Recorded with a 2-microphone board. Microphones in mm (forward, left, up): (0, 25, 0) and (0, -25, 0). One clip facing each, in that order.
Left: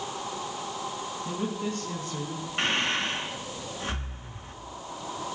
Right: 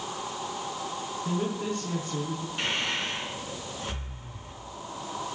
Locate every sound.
1.2 s a woman speaking: 15° right (ahead or behind), 6 m; by 2.5 s 25° right (ahead or behind), 4.5 m
2.6 s breathing: 40° left (ahead or behind), 4 m